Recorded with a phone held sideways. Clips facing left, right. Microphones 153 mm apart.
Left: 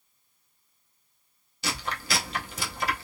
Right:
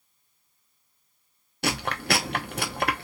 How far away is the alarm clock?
No alarm clock in this recording.